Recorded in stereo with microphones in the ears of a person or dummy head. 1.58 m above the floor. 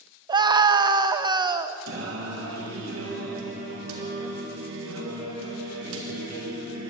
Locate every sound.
0.3 s a scream: 25° right (ahead or behind), 1.0 m
1.9 s singing: 90° right, 3 m